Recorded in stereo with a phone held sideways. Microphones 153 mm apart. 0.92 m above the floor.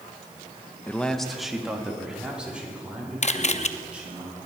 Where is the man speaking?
10° left (ahead or behind), 0.6 m; by 4.2 s 10° right (ahead or behind), 5.5 m.